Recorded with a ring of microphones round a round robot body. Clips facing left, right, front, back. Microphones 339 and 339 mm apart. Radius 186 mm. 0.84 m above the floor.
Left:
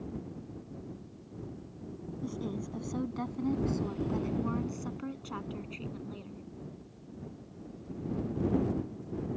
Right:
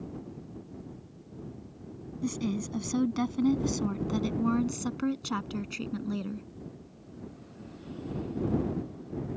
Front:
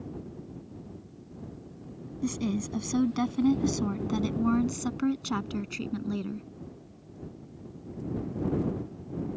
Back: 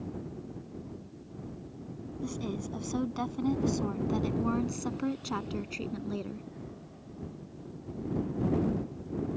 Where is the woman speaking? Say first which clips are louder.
Right 6 dB, front 6 dB; 40° right; by 6.5 s 60° right.